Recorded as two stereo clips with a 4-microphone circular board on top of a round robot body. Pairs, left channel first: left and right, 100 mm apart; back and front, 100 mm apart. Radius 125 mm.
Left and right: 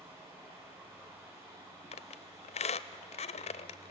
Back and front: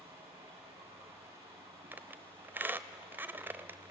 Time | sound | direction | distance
0.0 | running water | 25° right | 8 m
1.9 | a squeak | 70° left | 0.5 m